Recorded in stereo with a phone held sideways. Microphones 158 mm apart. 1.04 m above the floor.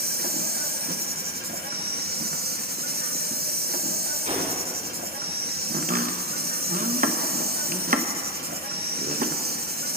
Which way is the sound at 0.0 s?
75° right (ahead or behind).